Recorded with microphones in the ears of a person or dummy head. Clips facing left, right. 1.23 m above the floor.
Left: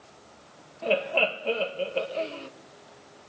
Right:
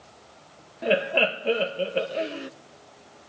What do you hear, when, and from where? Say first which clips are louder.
0.8 s laughter: right 2 dB; 20° right (ahead or behind), 0.8 m